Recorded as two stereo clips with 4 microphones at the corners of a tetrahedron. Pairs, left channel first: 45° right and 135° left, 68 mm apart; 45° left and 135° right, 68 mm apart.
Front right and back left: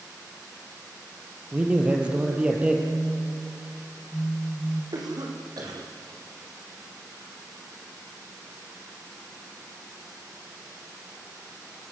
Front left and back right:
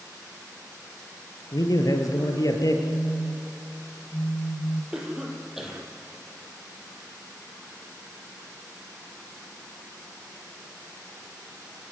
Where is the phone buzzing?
5° right, 4.5 m.